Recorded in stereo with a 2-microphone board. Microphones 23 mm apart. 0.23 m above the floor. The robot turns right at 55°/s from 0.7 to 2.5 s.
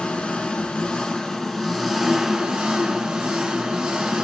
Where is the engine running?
115° left, 1.2 m; by 4.2 s 145° right, 1.2 m.